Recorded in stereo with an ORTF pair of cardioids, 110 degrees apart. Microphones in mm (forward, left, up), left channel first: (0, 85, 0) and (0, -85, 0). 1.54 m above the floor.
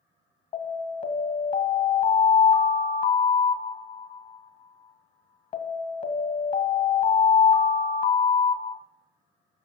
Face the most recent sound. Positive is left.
turn(degrees=55)